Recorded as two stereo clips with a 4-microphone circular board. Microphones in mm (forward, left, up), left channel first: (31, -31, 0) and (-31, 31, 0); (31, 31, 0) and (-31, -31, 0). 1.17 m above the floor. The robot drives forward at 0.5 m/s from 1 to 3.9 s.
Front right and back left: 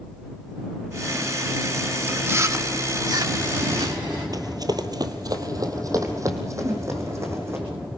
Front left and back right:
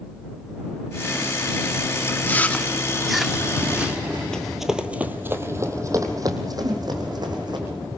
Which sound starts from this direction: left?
Chewing, at 2.1 s.